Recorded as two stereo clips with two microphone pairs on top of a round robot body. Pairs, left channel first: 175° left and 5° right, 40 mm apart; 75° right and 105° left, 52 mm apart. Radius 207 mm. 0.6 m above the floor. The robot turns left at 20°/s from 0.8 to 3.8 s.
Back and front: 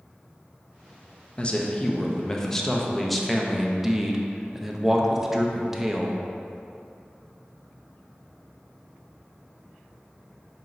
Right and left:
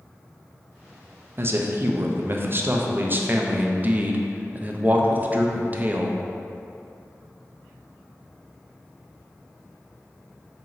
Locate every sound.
1.4 s a man speaking: 115° left, 0.7 m; by 6.2 s 65° left, 0.7 m